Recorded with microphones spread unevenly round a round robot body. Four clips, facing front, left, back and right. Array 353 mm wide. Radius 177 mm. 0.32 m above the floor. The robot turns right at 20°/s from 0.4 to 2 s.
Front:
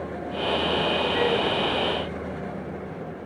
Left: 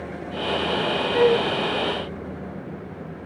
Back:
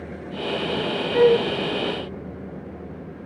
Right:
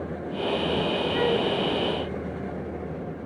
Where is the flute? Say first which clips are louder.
Left 7 dB, back 11 dB; 170° left; by 1.5 s straight behind.